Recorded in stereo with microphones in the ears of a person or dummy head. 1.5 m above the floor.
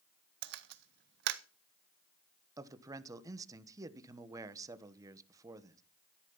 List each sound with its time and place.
0.4 s a camera shutter: 55° right (ahead or behind), 0.6 m
2.6 s a man speaking: 25° right (ahead or behind), 1.2 m